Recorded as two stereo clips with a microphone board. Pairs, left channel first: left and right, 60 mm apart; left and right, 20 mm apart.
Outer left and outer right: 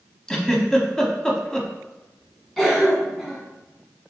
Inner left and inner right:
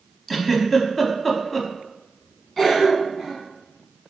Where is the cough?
5° left (ahead or behind), 1.7 m.